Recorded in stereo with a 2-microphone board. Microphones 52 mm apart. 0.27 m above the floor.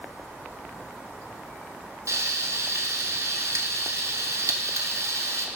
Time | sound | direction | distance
2.1 | frying | 85° right | 0.8 m